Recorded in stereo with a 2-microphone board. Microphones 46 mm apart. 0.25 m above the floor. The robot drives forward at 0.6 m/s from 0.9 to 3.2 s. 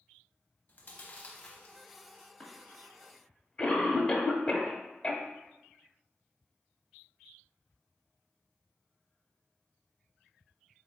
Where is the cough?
20° left (ahead or behind), 1.0 m.